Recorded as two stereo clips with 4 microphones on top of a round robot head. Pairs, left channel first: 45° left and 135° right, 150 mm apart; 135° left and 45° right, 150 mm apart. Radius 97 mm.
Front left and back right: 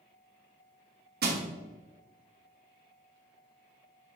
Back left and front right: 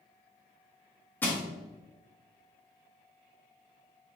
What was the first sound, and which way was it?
Crushing, 145° right.